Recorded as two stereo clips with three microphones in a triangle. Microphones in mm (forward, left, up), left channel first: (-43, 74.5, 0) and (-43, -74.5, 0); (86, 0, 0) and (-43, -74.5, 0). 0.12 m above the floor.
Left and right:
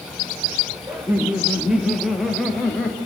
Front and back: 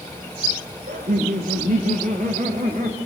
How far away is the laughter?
About 3.5 m.